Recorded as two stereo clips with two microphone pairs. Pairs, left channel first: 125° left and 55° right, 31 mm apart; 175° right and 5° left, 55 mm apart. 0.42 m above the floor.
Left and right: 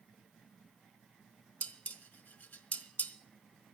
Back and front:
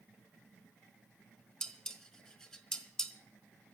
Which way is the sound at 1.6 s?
105° left.